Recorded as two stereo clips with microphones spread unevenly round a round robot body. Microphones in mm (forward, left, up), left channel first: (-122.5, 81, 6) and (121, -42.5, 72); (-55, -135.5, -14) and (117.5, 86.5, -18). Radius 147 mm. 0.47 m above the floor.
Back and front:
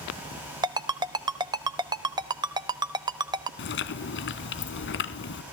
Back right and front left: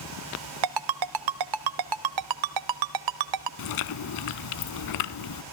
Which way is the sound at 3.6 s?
150° right.